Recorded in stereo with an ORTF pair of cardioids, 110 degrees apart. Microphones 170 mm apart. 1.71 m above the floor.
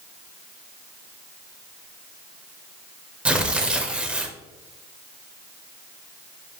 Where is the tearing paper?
5° right, 0.6 m.